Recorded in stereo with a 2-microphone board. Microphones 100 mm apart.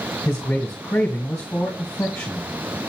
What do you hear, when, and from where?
0.2 s a man speaking: 30° left (ahead or behind), 2 m